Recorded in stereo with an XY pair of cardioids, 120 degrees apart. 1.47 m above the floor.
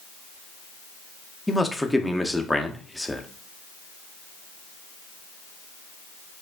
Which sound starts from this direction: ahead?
A man speaking, at 1.5 s.